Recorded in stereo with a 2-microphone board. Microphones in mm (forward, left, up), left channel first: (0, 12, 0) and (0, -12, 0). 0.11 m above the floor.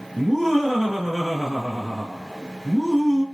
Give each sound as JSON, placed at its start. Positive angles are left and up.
{"t": 0.2, "sound": "laughter", "side_deg": -25, "distance_m": 2.0}